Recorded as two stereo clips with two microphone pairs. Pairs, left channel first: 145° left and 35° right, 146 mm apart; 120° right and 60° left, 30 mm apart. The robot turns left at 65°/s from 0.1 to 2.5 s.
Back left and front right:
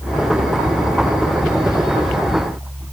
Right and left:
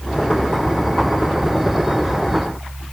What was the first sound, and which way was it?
Only background noise.